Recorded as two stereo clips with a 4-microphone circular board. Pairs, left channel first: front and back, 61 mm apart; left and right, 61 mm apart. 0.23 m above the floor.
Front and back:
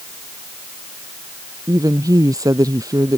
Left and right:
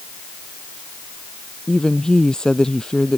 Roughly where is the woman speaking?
Behind.